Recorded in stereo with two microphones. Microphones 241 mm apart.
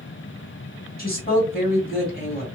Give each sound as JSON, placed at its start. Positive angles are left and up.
{"t": 1.0, "sound": "a woman speaking", "side_deg": 40, "distance_m": 2.5}